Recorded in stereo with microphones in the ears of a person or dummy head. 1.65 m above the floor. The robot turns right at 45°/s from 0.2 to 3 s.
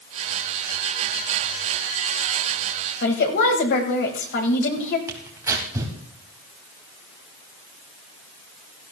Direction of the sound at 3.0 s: 55° left (ahead or behind).